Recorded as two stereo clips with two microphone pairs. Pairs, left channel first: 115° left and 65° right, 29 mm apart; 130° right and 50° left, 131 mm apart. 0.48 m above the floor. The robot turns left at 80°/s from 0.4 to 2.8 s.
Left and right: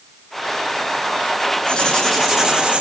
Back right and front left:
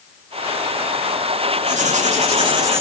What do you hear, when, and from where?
1.7 s writing: 70° left, 3 m; by 2.8 s 20° right, 3 m